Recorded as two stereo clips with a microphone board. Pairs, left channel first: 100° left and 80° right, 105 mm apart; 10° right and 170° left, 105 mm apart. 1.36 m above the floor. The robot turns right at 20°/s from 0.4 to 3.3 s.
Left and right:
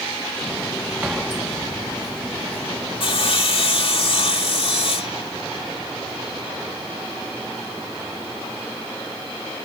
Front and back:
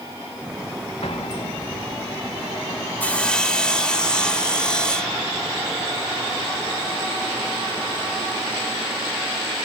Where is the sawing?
65° left; by 5.2 s 70° left.